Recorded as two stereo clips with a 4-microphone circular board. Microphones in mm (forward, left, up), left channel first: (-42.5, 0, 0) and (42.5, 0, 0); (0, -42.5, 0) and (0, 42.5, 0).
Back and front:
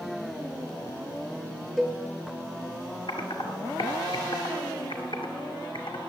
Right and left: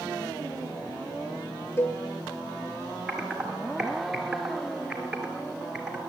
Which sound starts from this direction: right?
A cowbell, at 1.8 s.